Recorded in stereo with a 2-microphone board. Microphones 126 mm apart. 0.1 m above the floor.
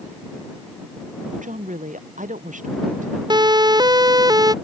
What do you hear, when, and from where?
1.3 s a woman speaking: 85° right
3.3 s a siren: 35° right (ahead or behind); by 4.5 s 30° right (ahead or behind)